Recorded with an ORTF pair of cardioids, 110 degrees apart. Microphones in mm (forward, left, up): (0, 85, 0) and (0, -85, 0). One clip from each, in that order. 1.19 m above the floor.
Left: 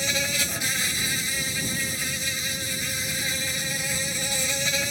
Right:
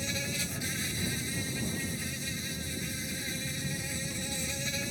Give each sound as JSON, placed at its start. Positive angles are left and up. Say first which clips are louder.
{"t": 0.0, "sound": "an insect", "louder": "left 10 dB", "azimuth_deg": 55}